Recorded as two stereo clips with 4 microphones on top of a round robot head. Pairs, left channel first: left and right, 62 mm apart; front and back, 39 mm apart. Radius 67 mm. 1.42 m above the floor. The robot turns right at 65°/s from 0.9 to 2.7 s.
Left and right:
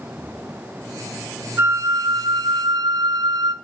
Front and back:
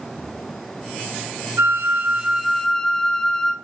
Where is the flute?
150° right, 1.6 m; by 3.5 s 75° right, 1.6 m.